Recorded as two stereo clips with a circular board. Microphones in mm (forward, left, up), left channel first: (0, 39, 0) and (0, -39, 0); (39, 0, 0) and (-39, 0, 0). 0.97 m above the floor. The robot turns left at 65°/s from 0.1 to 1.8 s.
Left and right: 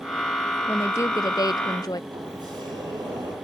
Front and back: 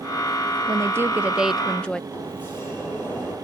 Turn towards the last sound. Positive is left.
turn(degrees=-70)